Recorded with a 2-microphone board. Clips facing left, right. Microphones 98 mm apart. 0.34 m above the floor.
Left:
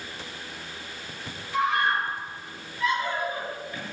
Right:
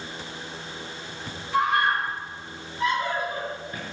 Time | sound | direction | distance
1.5 | a scream | 55° right (ahead or behind) | 7.5 m